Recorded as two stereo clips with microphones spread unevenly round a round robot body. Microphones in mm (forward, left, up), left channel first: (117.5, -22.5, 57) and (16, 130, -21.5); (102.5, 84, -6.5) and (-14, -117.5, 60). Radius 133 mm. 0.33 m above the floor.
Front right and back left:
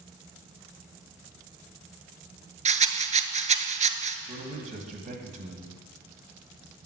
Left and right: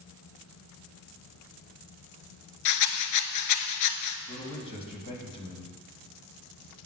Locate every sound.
2.6 s a rattle: 60° left, 0.8 m
4.3 s a man speaking: 115° left, 1.8 m